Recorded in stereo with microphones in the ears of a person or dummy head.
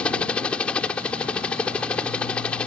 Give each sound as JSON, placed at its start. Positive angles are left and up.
{"t": 0.0, "sound": "a helicopter", "side_deg": 10}